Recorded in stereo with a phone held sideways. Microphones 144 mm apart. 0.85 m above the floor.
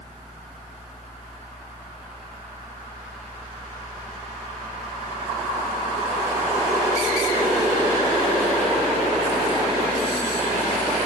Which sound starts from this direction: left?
A fan, at 0.0 s.